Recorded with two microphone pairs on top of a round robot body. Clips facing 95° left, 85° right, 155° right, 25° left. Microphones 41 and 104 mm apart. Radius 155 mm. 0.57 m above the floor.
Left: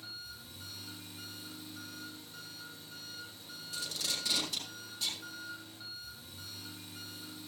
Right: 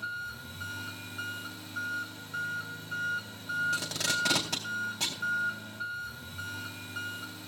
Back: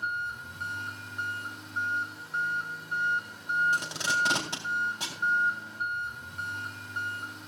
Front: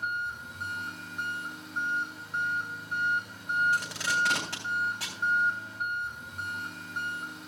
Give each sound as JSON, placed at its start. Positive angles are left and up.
{"t": 0.0, "sound": "an engine running", "azimuth_deg": -60, "distance_m": 4.5}
{"t": 3.7, "sound": "tape being pulled", "azimuth_deg": -85, "distance_m": 4.0}